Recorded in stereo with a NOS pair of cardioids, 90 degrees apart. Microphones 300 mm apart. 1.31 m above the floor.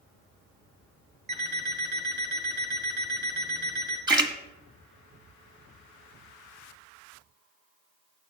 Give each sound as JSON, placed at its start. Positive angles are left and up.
{"t": 1.3, "sound": "an alarm clock", "azimuth_deg": -35, "distance_m": 3.5}
{"t": 4.1, "sound": "a splash", "azimuth_deg": -15, "distance_m": 1.3}